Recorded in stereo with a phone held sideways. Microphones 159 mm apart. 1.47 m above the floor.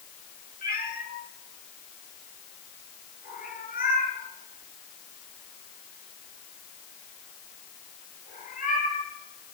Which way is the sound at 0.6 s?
65° left (ahead or behind).